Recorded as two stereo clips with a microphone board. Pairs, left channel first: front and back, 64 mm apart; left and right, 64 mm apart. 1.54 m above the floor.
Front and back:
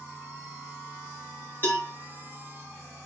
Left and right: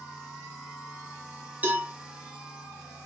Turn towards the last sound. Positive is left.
turn(degrees=-40)